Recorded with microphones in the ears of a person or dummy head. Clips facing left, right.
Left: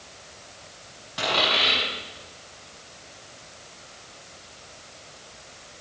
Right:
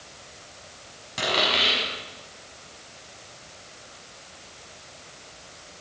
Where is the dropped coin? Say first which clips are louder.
Even; 30° right (ahead or behind), 6.5 m.